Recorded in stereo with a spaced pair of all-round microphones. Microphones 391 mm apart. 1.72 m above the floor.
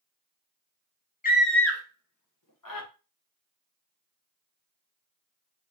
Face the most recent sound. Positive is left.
turn(degrees=60)  # may be behind; listen again after turning